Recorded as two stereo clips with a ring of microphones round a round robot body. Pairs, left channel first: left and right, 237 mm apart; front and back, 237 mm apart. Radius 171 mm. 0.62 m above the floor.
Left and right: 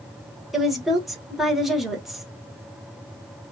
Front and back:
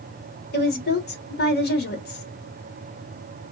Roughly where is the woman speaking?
Ahead.